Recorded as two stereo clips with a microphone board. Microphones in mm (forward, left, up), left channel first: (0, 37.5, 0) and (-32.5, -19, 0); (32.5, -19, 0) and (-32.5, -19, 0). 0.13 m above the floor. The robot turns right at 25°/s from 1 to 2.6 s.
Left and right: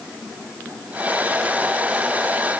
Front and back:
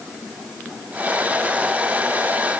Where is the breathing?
No breathing in this recording.